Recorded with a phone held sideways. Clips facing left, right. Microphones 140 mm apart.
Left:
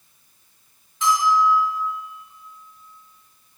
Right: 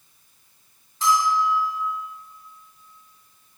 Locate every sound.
1.0 s a bell: 35° right (ahead or behind), 3 m